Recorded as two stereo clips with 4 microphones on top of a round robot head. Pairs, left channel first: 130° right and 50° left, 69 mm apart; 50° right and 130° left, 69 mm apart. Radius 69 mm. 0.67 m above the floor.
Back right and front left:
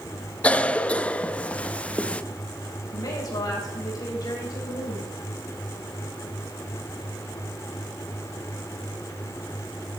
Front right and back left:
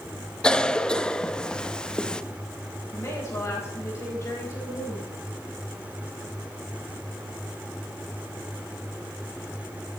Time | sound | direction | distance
0.4 | a cough | 105° right | 0.8 m
2.9 | a woman speaking | 100° right | 4.5 m